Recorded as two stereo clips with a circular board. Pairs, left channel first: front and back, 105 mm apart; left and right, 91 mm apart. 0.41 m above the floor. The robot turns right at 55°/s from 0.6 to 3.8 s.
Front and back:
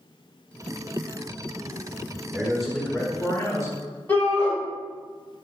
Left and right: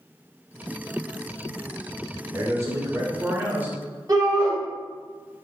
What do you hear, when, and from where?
2.3 s a man speaking: 110° right, 0.9 m; by 3.8 s 30° right, 0.9 m
4.1 s a shout: 65° right, 1.7 m